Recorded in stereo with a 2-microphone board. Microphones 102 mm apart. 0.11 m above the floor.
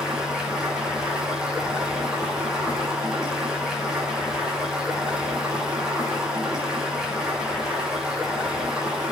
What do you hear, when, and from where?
0.0 s running water: 5° right (ahead or behind), 5.5 m